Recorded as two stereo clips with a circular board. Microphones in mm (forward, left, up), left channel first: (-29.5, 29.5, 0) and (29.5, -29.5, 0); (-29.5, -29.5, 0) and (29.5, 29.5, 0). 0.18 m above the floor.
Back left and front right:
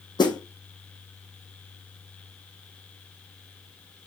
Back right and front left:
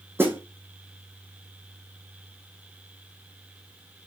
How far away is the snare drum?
About 3 m.